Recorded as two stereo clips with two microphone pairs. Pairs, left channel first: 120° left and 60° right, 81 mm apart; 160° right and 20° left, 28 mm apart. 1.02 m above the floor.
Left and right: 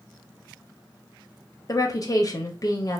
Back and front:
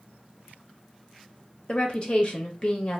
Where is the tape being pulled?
I don't hear tape being pulled.